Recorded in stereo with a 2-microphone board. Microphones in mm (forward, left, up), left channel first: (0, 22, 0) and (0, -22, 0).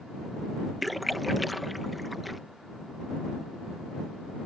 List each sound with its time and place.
0.8 s a splash: centre (ahead or behind)